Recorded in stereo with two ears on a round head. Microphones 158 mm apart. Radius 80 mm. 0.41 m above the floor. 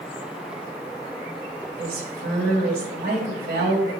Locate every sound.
1.8 s a woman speaking: 60° right (ahead or behind), 2.5 m